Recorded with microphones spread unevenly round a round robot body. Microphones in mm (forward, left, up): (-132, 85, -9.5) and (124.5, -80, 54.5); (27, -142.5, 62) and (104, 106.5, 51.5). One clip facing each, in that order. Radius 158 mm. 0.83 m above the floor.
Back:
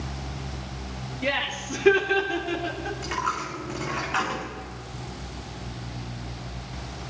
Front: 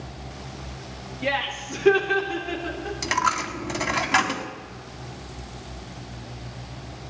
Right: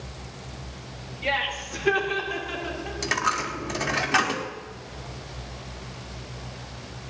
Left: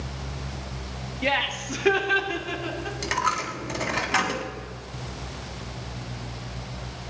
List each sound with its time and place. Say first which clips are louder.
1.2 s laughter: front 1 dB, left 3 dB; 65° left, 2 m; by 3.0 s 75° left, 4 m
3.0 s a dropped coin: front 3 dB, right 1 dB; 20° right, 1.6 m